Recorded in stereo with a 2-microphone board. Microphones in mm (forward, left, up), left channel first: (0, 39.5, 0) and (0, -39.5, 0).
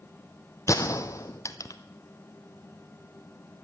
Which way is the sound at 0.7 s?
40° left (ahead or behind).